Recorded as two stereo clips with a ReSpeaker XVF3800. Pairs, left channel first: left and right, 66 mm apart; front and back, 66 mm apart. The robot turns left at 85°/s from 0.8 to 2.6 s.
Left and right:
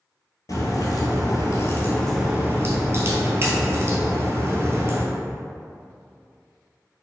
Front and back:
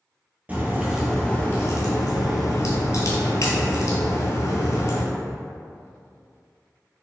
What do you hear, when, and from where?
0.5 s a crack: 115° left, 0.7 m; by 5.0 s 40° right, 0.7 m